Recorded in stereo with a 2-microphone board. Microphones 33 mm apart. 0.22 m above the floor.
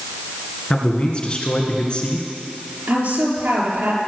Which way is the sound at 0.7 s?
30° left (ahead or behind).